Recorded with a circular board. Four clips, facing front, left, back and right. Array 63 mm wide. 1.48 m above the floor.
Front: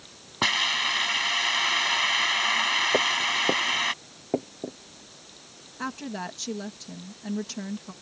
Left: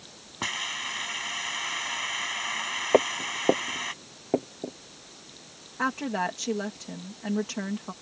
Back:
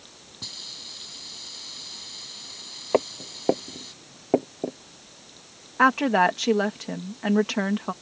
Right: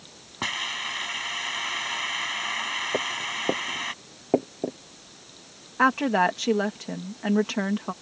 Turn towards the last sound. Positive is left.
turn(degrees=-155)